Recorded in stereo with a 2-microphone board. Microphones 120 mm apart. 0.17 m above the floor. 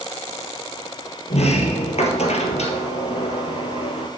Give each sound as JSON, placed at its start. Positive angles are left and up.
{"t": 1.3, "sound": "a sliding door", "side_deg": 65, "distance_m": 1.4}